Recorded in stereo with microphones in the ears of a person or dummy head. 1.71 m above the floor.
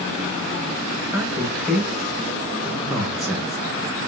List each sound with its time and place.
1.1 s a man speaking: centre (ahead or behind), 1.5 m